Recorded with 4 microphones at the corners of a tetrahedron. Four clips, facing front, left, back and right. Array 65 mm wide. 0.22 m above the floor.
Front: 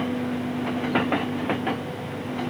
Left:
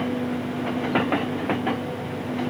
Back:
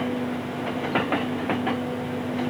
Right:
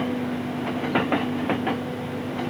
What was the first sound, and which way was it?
Only background noise.